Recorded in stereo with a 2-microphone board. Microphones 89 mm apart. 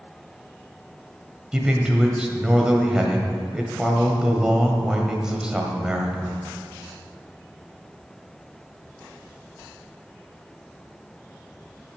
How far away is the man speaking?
About 1.3 m.